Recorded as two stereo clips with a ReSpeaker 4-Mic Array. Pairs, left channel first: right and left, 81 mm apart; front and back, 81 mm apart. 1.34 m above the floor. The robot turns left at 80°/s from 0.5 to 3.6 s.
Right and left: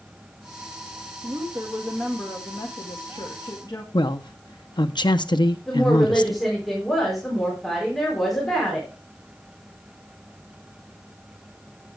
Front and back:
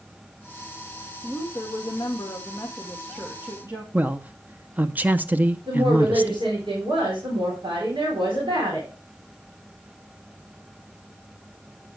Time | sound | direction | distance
1.2 | a woman speaking | 55° left | 1.7 m
3.9 | a man speaking | 110° right | 0.7 m
5.7 | a woman speaking | straight behind | 4 m